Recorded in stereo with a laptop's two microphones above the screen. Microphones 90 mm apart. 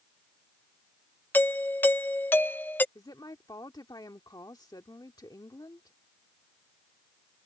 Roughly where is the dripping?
No dripping in this recording.